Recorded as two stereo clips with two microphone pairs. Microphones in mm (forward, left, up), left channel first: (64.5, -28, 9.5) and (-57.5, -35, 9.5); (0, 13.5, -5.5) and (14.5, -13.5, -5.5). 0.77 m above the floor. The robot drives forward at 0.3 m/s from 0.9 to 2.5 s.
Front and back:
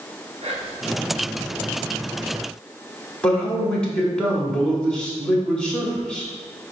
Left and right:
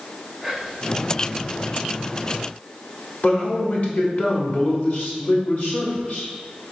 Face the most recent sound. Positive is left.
turn(degrees=85)